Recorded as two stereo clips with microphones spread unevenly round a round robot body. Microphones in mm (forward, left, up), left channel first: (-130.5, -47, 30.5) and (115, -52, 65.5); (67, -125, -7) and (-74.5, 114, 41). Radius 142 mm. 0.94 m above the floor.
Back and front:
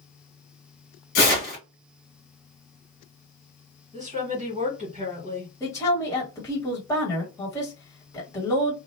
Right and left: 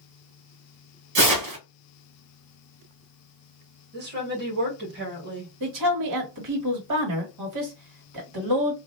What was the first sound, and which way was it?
Tearing paper, 140° left.